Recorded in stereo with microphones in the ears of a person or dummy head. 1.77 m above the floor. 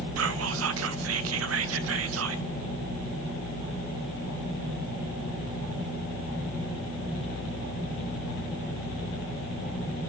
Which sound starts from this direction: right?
Whispering, at 0.2 s.